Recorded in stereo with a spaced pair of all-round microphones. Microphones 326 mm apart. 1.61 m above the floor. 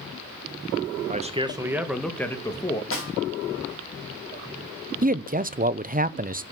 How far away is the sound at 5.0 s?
About 0.6 m.